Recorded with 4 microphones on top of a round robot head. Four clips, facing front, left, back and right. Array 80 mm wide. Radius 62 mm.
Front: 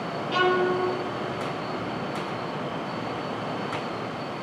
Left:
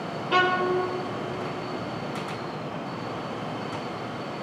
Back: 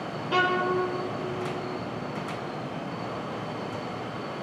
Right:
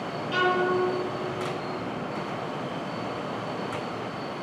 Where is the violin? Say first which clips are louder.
Left 2 dB, front 2 dB; 110° left, 1.0 m.